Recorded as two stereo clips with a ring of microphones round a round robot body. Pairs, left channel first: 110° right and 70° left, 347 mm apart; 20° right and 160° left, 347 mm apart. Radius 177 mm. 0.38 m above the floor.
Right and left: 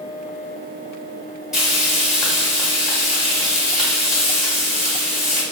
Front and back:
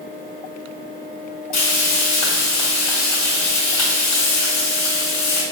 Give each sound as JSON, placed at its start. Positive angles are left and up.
{"t": 1.5, "sound": "frying", "azimuth_deg": -20, "distance_m": 1.4}